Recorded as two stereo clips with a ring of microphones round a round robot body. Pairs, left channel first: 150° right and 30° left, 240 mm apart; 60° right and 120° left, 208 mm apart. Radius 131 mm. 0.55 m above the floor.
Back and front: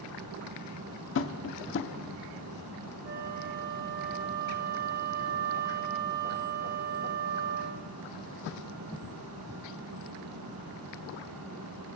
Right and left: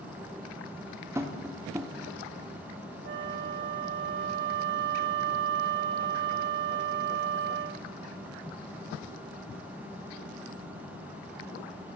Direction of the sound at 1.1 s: 165° right.